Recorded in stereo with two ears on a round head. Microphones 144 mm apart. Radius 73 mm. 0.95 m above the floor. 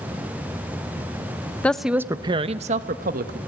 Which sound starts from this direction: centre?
A woman speaking, at 1.6 s.